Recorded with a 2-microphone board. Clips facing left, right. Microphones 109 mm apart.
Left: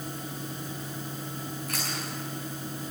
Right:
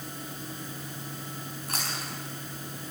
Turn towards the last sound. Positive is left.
turn(degrees=-35)  # may be behind; listen again after turning